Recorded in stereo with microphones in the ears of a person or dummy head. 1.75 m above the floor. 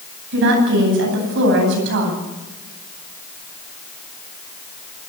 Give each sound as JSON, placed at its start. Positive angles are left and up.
{"t": 0.3, "sound": "a woman speaking", "side_deg": -65, "distance_m": 10.0}